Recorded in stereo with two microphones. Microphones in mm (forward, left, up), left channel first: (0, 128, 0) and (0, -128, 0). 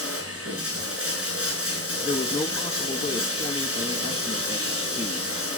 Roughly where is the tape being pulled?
No tape being pulled in this recording.